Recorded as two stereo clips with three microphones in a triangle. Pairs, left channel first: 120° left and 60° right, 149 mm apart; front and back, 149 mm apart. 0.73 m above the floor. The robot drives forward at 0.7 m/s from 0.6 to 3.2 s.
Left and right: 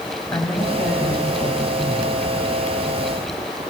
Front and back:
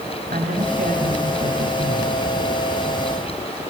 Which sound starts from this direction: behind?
A man speaking, at 0.3 s.